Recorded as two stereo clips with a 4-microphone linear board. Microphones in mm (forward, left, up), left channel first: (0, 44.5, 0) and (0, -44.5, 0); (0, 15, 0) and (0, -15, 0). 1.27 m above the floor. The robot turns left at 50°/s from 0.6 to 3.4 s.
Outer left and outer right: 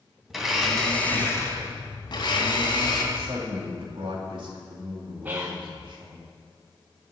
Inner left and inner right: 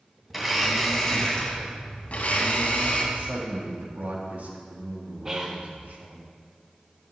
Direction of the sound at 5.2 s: 20° right (ahead or behind).